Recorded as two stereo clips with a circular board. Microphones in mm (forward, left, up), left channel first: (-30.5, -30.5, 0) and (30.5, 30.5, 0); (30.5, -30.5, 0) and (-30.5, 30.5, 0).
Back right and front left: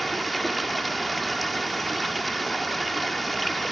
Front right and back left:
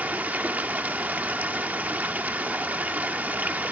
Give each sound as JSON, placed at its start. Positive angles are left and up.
{"t": 0.0, "sound": "running water", "azimuth_deg": 140, "distance_m": 0.9}